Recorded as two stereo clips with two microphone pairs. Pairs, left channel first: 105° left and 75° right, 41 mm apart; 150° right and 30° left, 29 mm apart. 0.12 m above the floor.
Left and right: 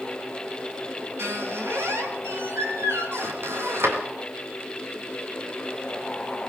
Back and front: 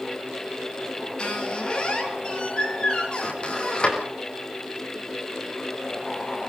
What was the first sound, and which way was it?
A squeak, 95° right.